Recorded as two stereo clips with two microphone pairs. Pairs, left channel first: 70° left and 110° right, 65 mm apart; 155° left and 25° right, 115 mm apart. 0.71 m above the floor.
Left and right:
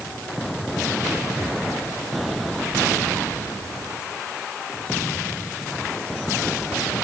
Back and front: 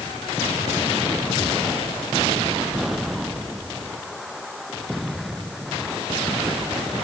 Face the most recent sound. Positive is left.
No sound to turn to.